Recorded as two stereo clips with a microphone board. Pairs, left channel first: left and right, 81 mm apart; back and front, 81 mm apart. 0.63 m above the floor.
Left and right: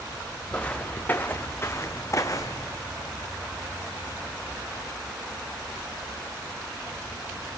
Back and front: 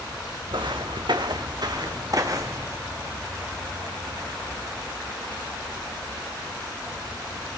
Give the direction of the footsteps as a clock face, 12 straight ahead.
12 o'clock.